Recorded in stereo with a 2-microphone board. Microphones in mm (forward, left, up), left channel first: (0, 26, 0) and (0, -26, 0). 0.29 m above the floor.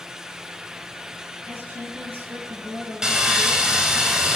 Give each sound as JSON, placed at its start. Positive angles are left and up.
{"t": 1.5, "sound": "a woman speaking", "side_deg": -45, "distance_m": 4.0}
{"t": 3.0, "sound": "sawing", "side_deg": -15, "distance_m": 1.8}